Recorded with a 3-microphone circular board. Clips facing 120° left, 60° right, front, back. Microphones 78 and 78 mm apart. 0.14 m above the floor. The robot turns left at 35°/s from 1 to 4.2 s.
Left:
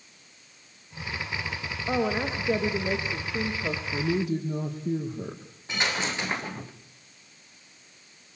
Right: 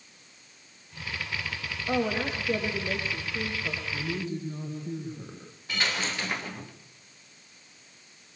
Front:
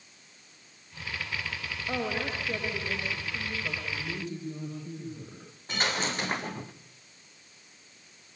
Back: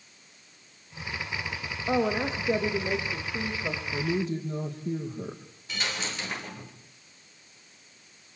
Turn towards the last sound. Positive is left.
turn(degrees=50)